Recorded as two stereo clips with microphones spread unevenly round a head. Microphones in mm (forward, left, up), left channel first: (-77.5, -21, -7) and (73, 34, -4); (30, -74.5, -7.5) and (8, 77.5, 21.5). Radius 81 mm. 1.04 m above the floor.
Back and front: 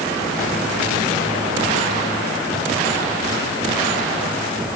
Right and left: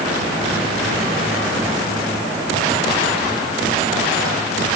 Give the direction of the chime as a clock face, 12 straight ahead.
No chime in this recording.